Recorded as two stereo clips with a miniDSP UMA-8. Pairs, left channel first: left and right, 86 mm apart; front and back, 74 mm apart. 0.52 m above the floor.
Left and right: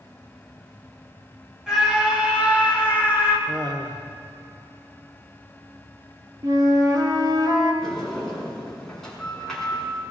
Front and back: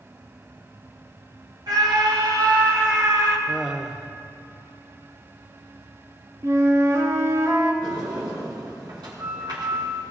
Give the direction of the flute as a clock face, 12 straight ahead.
4 o'clock.